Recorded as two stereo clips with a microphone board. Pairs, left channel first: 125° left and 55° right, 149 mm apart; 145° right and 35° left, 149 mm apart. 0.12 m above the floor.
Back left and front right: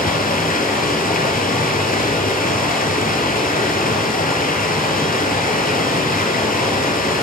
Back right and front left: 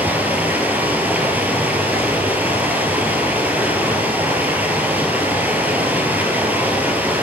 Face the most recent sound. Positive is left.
turn(degrees=115)